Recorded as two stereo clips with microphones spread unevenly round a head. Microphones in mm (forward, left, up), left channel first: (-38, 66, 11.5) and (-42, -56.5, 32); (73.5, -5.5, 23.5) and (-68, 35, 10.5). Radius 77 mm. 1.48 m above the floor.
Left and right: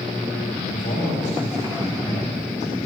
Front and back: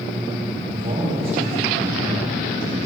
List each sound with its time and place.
0.7 s a man speaking: 115° left, 3 m